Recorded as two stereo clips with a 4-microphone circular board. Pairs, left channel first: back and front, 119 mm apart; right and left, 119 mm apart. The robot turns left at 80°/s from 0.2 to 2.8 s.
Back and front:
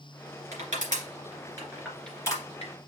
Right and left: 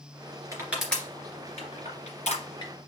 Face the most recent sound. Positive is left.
turn(degrees=-155)